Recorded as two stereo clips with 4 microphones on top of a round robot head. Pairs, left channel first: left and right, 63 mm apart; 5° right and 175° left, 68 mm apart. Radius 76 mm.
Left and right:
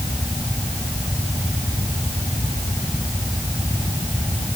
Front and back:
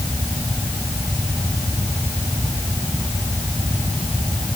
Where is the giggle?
No giggle in this recording.